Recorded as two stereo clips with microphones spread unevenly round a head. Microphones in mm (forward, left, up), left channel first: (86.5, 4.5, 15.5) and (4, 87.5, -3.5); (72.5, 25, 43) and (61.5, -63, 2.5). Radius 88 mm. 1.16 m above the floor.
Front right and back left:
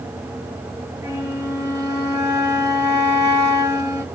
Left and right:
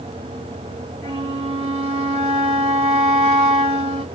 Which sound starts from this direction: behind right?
A flute, at 1.0 s.